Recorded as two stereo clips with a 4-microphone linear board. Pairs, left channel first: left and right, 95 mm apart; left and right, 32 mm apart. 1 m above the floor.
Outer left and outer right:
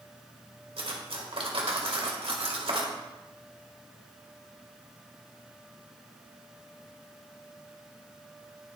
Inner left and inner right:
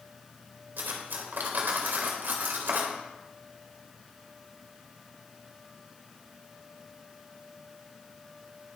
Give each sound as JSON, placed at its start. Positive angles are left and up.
{"t": 0.8, "sound": "cutlery clinking", "side_deg": -85, "distance_m": 2.5}